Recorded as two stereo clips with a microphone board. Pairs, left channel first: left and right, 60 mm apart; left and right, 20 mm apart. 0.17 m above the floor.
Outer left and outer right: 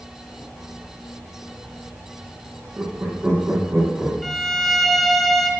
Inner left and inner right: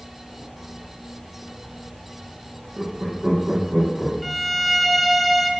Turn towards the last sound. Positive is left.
turn(degrees=5)  # may be behind; listen again after turning